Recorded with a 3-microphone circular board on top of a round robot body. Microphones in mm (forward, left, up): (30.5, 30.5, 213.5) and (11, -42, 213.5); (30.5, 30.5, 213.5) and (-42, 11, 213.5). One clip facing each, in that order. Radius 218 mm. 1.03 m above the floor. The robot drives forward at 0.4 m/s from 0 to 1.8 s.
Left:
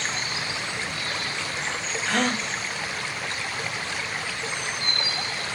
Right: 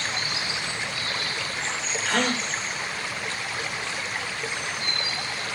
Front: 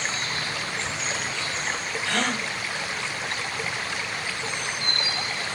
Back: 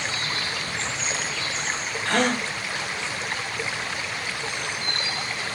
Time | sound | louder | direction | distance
2.0 | a gasp | even, back 5 dB | 165° left | 1.3 m